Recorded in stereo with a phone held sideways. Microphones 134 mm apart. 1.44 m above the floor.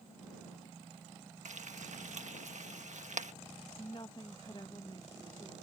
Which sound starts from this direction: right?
Frying, at 1.4 s.